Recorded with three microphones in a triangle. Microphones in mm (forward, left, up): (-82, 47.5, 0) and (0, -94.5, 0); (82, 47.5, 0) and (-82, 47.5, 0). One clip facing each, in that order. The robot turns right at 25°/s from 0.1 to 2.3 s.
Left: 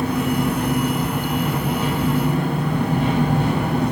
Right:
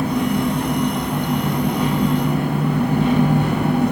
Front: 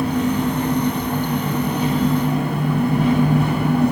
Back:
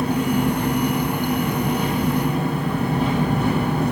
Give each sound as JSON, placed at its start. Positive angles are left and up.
{"t": 0.0, "sound": "an engine running", "azimuth_deg": -80, "distance_m": 2.0}